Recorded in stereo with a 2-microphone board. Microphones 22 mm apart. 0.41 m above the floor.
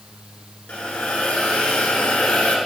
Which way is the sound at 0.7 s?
75° left (ahead or behind).